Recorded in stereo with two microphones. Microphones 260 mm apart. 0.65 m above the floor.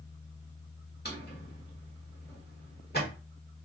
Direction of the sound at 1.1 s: 40° left (ahead or behind).